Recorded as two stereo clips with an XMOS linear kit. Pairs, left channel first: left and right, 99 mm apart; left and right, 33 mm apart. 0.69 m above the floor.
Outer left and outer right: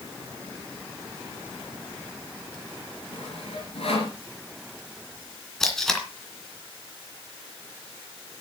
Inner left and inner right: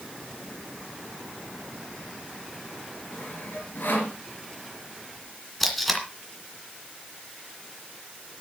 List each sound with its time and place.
3.1 s sawing: 80° left, 3.5 m
5.6 s tape being pulled: 5° left (ahead or behind), 2.5 m